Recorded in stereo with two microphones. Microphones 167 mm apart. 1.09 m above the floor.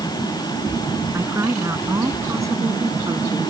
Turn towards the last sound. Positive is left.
turn(degrees=-20)  # may be behind; listen again after turning